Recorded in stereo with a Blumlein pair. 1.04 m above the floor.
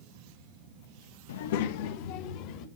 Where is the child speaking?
60° left, 0.9 m; by 2.7 s 45° left, 1.5 m.